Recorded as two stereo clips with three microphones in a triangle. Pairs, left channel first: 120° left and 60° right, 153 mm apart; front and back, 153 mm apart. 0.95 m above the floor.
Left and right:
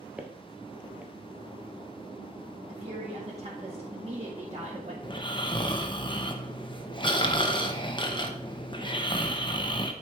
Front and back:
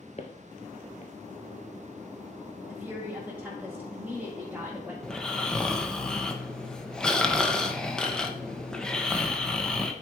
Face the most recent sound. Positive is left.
turn(degrees=85)